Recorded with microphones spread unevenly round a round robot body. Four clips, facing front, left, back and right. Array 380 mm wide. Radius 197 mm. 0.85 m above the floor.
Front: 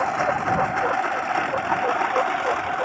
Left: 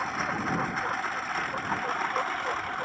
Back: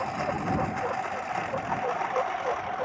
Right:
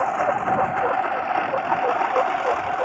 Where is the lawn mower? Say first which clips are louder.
Right 10 dB, front 7 dB; 45° right; by 2.9 s 55° right.